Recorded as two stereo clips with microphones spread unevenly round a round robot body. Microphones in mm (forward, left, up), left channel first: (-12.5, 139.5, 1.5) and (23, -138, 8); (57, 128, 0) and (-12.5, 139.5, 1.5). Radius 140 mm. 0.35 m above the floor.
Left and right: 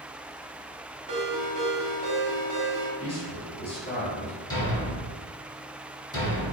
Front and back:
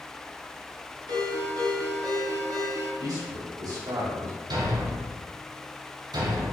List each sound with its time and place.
1.1 s a ringtone: 155° right, 1.3 m
3.0 s a man speaking: 160° left, 1.6 m
4.5 s a thud: 175° left, 1.6 m